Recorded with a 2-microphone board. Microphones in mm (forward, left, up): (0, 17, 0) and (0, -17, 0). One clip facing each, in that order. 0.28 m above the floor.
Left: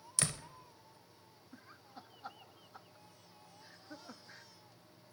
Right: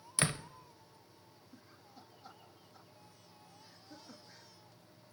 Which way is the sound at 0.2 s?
20° right (ahead or behind).